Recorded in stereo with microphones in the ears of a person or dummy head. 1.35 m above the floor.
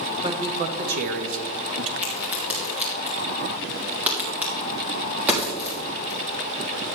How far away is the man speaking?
About 1.5 m.